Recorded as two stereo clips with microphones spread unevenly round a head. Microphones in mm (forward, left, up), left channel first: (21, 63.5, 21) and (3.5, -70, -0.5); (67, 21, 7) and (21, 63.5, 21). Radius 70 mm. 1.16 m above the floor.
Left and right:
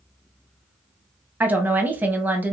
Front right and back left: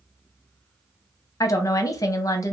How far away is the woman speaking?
About 0.7 m.